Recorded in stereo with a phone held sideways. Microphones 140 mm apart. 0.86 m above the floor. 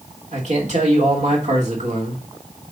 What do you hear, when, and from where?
0.3 s a man speaking: 55° right (ahead or behind), 2.5 m